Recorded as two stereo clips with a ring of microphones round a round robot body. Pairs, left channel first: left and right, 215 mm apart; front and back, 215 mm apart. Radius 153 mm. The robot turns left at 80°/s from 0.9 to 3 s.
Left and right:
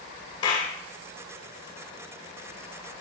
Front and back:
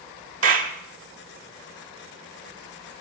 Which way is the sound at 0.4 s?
165° left.